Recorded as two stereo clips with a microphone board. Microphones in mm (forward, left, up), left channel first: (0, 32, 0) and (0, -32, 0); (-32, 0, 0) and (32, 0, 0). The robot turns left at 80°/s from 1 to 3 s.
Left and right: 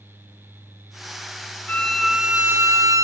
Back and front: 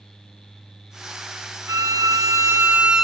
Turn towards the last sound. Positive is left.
turn(degrees=-80)